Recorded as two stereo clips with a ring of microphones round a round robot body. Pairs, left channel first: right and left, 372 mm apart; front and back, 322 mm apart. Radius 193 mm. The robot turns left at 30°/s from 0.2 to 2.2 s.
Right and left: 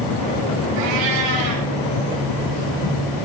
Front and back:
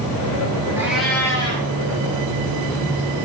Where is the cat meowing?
100° left, 6.5 m; by 1.7 s 70° left, 6.5 m.